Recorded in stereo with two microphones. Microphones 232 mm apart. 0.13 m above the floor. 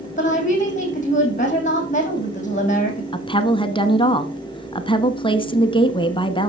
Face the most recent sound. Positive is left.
turn(degrees=20)  # may be behind; listen again after turning